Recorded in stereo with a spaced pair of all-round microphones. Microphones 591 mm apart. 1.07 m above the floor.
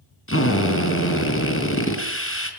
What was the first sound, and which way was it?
A drill, 20° left (ahead or behind).